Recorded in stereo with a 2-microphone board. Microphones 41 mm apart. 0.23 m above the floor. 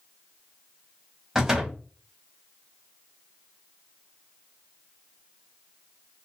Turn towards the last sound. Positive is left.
turn(degrees=-15)  # may be behind; listen again after turning